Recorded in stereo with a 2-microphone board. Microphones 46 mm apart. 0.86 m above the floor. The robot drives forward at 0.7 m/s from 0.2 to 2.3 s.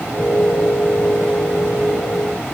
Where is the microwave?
No microwave in this recording.